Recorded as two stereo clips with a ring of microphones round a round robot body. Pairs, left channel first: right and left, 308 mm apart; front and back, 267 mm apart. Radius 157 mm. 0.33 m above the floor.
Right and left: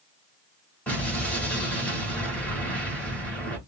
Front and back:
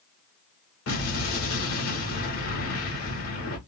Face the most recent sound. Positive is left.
turn(degrees=-5)